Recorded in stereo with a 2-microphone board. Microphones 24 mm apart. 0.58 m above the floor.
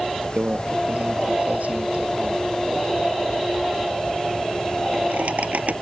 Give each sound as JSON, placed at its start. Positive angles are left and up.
{"t": 0.4, "sound": "a microwave", "side_deg": -80}